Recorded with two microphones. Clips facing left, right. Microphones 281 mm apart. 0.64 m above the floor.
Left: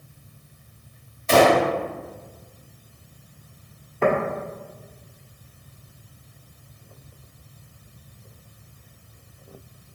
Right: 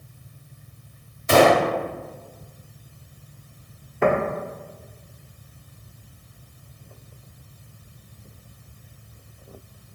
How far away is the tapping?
About 1.5 m.